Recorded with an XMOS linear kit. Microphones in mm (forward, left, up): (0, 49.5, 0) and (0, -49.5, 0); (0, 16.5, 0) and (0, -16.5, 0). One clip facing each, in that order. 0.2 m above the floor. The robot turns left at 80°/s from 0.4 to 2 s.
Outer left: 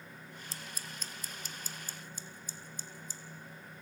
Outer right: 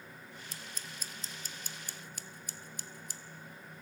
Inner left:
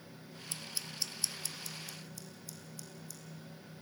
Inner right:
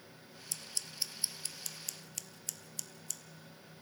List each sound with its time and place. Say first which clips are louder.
0.5 s scissors: outer left 2 dB, inner left 1 dB; 30° left (ahead or behind), 0.6 m; by 3.2 s 85° right, 0.6 m